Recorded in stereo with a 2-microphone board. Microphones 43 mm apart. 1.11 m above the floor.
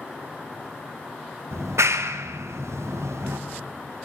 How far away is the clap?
About 0.6 m.